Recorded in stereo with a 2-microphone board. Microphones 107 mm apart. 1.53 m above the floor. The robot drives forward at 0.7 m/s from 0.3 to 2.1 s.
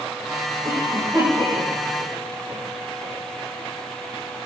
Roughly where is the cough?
Right.